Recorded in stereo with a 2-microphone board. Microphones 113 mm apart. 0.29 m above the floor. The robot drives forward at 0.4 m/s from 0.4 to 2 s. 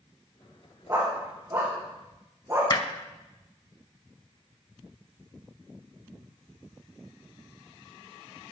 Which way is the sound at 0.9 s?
25° right (ahead or behind).